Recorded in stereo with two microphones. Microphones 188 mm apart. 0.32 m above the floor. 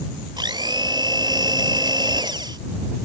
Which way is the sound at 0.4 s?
25° right (ahead or behind).